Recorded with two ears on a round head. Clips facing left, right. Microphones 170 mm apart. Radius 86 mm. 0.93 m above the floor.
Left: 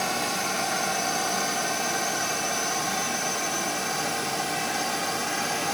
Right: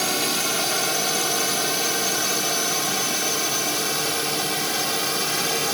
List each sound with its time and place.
0.0 s a drone: 40° right (ahead or behind); by 5.7 s 45° right (ahead or behind)